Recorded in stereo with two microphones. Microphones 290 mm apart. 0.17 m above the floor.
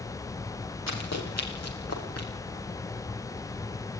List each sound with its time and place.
0.9 s running footsteps: 65° left (ahead or behind), 8 m; by 2.3 s 55° left (ahead or behind), 7.5 m